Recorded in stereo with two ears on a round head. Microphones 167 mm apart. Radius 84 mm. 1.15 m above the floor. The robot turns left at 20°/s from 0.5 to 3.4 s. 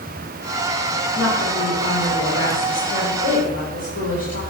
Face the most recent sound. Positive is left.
turn(degrees=60)